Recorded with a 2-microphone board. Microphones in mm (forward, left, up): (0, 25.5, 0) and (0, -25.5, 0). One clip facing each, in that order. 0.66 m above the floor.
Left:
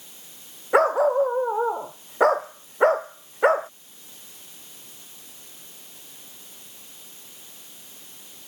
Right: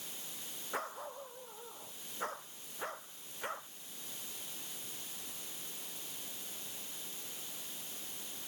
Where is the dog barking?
80° left; by 3.7 s 85° left.